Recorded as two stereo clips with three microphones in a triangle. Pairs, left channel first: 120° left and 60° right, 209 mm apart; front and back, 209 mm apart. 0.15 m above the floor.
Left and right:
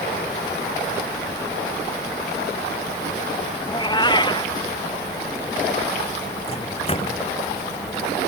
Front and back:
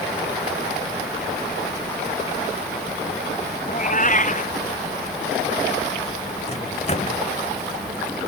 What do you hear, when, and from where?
3.7 s a cat meowing: 50° left
6.5 s a microwave: 60° left